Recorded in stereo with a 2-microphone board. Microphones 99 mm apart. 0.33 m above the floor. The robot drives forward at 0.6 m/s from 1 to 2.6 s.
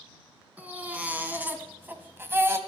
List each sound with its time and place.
0.6 s a baby crying: 15° right (ahead or behind), 2 m; by 2.6 s 25° right (ahead or behind), 1.4 m